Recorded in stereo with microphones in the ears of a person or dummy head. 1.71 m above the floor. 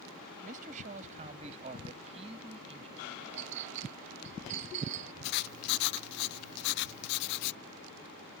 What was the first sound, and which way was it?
A man speaking, 35° right (ahead or behind).